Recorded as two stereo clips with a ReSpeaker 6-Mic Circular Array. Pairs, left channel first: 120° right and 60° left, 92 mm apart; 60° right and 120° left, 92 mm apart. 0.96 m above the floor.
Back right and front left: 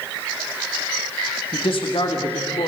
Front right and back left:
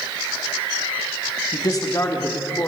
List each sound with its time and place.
1.5 s a man speaking: 100° right, 1.6 m; by 2.7 s 120° right, 3 m